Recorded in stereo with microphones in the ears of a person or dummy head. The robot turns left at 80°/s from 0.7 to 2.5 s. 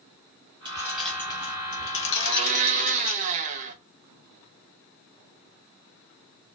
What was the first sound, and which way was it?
Keys jangling, 20° right (ahead or behind).